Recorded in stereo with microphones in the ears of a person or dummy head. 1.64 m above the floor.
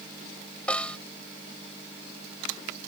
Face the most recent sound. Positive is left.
turn(degrees=10)  # may be behind; listen again after turning